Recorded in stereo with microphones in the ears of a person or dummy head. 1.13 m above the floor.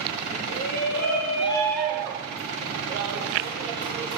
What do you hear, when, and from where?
0.5 s a shout: 55° left (ahead or behind), 1.1 m; by 4.2 s 75° right (ahead or behind), 1.8 m